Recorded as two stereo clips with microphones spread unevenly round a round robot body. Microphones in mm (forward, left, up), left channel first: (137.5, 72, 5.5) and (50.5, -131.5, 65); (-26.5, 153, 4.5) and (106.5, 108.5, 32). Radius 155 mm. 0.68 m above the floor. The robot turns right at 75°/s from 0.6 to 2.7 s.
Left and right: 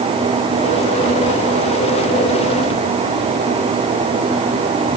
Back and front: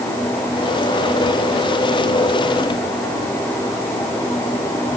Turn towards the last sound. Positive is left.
No sound to turn to.